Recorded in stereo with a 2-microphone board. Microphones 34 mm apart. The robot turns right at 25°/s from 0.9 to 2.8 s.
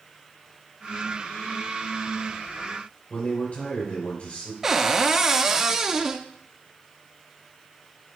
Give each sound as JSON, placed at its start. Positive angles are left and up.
{"t": 3.1, "sound": "a man speaking", "side_deg": 40, "distance_m": 3.0}
{"t": 4.6, "sound": "a cupboard door", "side_deg": -15, "distance_m": 0.8}